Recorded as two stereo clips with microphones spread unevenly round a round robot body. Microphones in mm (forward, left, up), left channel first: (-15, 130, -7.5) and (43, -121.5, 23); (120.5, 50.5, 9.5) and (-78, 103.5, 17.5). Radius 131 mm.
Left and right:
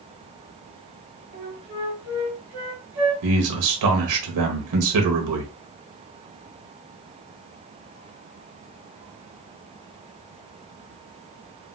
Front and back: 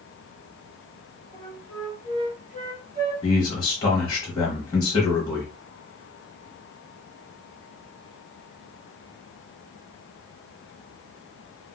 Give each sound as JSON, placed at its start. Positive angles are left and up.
{"t": 1.3, "sound": "a flute", "azimuth_deg": -130, "distance_m": 1.6}
{"t": 3.2, "sound": "a man speaking", "azimuth_deg": -85, "distance_m": 0.9}